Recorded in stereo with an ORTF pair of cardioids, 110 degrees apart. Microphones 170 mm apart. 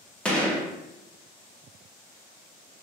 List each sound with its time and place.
0.2 s a gunshot: 5° left, 0.6 m